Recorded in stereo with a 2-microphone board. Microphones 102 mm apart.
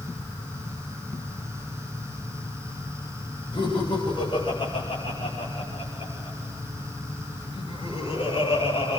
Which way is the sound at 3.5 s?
50° left (ahead or behind).